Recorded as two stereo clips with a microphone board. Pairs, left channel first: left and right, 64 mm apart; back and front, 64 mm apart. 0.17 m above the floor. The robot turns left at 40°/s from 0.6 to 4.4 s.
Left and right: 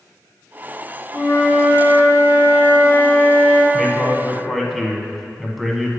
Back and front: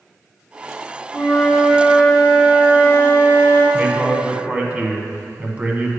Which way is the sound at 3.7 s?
20° left.